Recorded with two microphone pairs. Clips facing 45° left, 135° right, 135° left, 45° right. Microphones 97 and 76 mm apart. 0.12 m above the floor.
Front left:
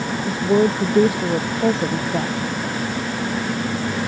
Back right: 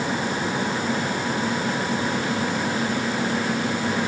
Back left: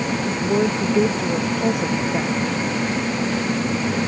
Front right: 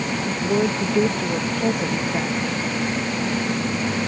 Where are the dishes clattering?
I don't hear dishes clattering.